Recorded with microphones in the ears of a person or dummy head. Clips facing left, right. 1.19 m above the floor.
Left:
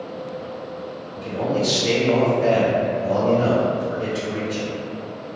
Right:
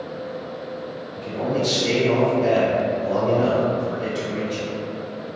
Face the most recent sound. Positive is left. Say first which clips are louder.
# left 1 dB
turn(degrees=20)  # may be behind; listen again after turning